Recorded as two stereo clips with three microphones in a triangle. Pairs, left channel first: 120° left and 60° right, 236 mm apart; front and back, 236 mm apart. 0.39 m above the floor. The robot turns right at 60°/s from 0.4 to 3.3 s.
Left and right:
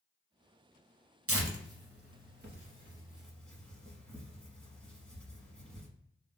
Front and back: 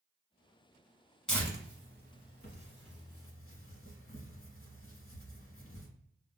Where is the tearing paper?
85° right, 0.9 m; by 5.9 s 35° left, 0.9 m.